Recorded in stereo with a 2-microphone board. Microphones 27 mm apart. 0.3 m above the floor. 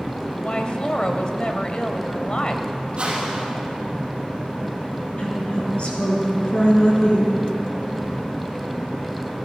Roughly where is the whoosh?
Right.